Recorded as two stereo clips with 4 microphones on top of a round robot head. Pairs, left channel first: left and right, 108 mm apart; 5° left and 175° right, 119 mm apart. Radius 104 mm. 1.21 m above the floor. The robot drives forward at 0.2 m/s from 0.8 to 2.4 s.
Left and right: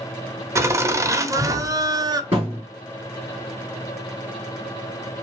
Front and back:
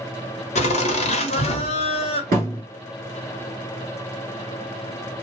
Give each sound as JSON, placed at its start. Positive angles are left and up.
{"t": 0.6, "sound": "laughter", "azimuth_deg": -25, "distance_m": 1.0}
{"t": 2.3, "sound": "a thud", "azimuth_deg": -155, "distance_m": 2.0}